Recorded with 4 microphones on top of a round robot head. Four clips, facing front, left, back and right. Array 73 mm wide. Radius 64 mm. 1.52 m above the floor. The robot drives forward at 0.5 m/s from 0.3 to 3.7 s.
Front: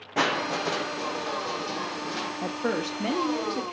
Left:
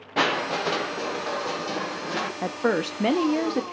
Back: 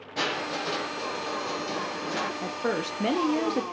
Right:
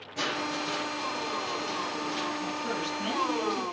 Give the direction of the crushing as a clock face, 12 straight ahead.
10 o'clock.